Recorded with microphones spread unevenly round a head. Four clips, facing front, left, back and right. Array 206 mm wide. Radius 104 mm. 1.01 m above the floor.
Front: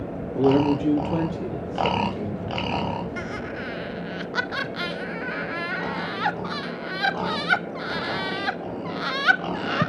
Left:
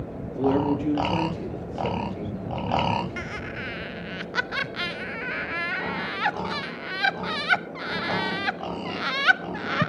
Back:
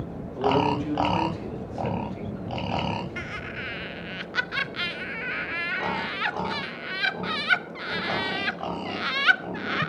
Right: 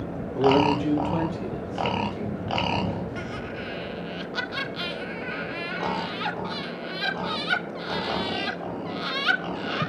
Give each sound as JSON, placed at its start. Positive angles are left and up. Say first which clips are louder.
{"t": 0.3, "sound": "a man speaking", "louder": "right 3 dB, front 4 dB", "azimuth_deg": 0, "distance_m": 2.5}
{"t": 3.2, "sound": "laughter", "louder": "right 1 dB, front 4 dB", "azimuth_deg": 35, "distance_m": 0.7}